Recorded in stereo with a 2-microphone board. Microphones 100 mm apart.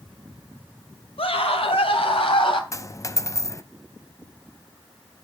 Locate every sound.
1.2 s a scream: 70° left (ahead or behind), 2.5 m; by 2.6 s 60° left (ahead or behind), 3 m
2.7 s a dropped coin: 30° left (ahead or behind), 0.7 m